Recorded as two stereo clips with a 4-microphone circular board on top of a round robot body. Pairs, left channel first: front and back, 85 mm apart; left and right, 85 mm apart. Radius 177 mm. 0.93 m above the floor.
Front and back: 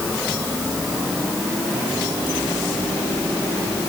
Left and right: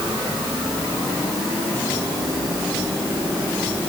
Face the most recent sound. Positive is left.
No sound to turn to.